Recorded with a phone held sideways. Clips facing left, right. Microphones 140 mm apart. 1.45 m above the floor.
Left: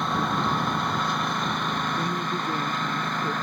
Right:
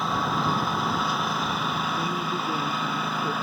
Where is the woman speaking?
5° right (ahead or behind).